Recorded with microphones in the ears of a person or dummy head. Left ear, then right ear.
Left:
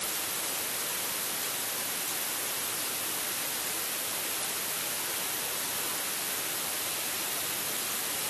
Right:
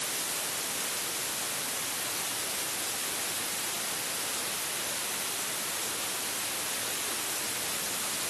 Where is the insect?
40° left (ahead or behind), 1.7 m.